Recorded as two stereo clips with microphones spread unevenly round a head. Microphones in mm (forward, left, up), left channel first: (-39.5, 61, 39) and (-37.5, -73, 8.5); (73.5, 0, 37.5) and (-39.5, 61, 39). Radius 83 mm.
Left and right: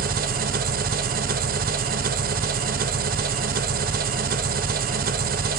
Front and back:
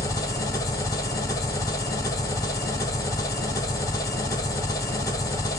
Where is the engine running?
95° right, 0.8 m.